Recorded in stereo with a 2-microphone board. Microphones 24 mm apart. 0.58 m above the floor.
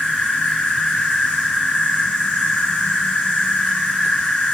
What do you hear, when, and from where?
0.0 s an insect: 70° left (ahead or behind), 6 m